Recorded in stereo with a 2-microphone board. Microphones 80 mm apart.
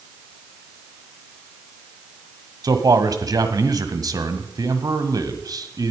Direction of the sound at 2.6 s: 50° right (ahead or behind).